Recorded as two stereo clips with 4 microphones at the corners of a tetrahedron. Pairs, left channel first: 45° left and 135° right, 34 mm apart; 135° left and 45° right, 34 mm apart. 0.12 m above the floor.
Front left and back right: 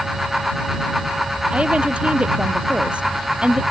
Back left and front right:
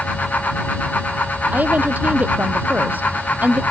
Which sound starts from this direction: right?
A woman speaking, at 1.5 s.